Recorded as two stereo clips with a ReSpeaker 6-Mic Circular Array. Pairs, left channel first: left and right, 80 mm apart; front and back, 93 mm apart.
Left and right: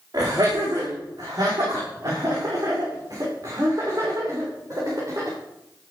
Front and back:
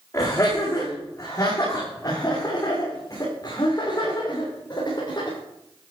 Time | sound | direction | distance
0.1 | laughter | 50° right | 7.5 m